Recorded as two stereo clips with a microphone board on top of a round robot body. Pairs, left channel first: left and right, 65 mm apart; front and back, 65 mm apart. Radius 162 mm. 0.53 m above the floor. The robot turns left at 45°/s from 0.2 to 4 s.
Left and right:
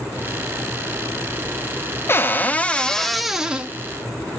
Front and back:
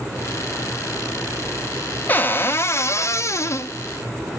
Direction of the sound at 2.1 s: 50° left.